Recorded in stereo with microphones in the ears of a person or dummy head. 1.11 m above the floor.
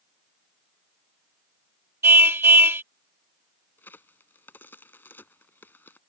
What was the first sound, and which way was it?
A car horn, 15° right (ahead or behind).